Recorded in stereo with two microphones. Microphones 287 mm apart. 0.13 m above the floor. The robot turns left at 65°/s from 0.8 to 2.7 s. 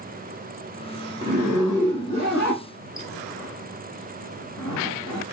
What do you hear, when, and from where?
1.2 s a zipper: 30° right (ahead or behind), 4 m; by 5.2 s 60° left (ahead or behind), 4 m